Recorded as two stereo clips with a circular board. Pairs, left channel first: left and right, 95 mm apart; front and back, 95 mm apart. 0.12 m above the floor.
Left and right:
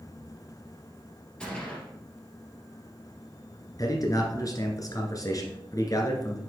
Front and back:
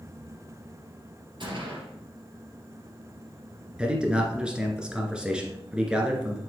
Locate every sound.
1.4 s a gunshot: 170° left, 3 m
3.8 s a man speaking: 105° left, 1.6 m